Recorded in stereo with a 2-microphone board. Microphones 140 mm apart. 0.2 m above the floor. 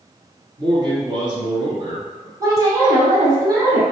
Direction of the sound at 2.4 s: 25° right (ahead or behind).